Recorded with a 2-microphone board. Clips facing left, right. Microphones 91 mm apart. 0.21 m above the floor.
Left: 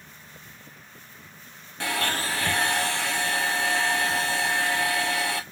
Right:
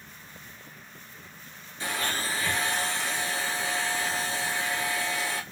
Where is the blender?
80° left, 0.9 m.